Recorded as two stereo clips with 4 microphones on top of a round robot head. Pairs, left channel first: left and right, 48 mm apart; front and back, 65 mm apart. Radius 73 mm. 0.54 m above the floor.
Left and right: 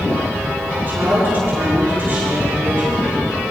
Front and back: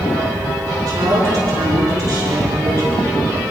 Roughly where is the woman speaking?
Behind right.